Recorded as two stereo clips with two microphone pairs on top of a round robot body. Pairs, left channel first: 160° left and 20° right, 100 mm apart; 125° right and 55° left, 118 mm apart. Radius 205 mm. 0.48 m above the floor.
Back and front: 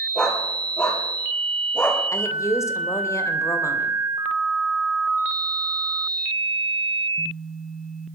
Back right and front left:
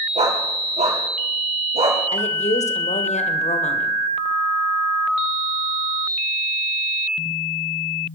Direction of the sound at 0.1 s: 80° left.